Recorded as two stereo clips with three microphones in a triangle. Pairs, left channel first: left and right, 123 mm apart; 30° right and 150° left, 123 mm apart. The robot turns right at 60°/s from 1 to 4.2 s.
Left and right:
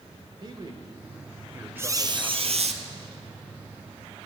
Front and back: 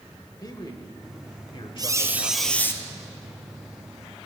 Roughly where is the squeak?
Behind right.